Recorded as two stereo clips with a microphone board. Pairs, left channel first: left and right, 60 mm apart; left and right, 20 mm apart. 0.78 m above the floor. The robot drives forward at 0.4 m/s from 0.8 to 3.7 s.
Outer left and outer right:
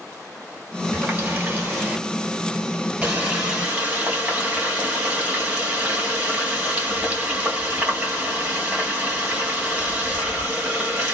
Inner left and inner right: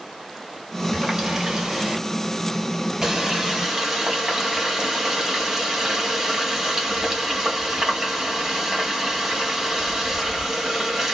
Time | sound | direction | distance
0.9 | a running tap | 25° right (ahead or behind) | 1.5 m